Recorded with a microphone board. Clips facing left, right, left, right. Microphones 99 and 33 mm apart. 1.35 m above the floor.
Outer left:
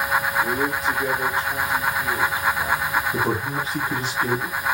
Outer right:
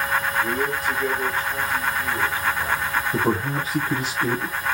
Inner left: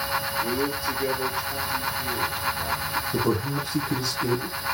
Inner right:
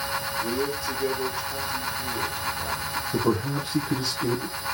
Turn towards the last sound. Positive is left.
turn(degrees=-10)  # may be behind; listen again after turning